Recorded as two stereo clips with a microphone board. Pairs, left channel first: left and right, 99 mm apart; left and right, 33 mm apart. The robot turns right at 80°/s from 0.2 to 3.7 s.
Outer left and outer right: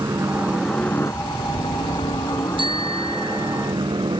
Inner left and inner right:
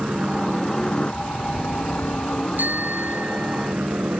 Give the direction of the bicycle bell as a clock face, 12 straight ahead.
4 o'clock.